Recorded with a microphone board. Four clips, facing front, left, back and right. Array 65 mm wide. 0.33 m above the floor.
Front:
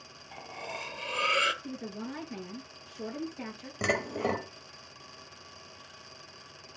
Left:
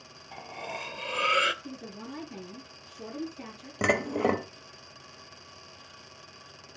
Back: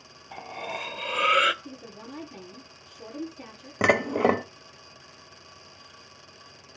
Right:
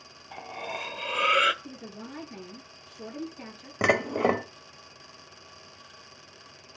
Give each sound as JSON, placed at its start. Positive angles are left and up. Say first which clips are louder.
{"t": 0.3, "sound": "cutlery clinking", "louder": "right 2 dB, back 5 dB", "azimuth_deg": -155, "distance_m": 0.5}
{"t": 1.6, "sound": "a woman speaking", "louder": "left 1 dB, front 4 dB", "azimuth_deg": -10, "distance_m": 6.0}
{"t": 3.8, "sound": "dishes clattering", "louder": "right 2 dB, back 8 dB", "azimuth_deg": -160, "distance_m": 0.8}